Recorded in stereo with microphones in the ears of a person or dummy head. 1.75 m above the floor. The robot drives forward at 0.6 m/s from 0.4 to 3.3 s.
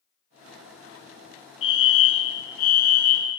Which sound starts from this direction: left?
A fire alarm, at 1.6 s.